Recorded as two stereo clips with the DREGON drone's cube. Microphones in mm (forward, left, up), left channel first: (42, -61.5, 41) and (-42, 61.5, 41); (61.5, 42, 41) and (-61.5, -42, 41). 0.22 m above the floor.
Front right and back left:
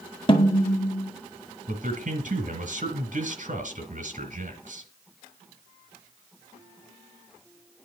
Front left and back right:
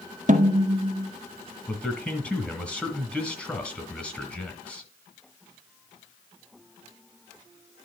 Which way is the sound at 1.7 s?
115° left.